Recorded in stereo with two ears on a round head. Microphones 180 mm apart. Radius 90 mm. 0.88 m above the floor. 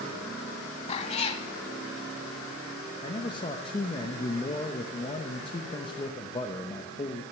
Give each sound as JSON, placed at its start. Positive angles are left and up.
{"t": 0.9, "sound": "a cat meowing", "side_deg": 30, "distance_m": 0.8}
{"t": 3.0, "sound": "a man speaking", "side_deg": 25, "distance_m": 0.8}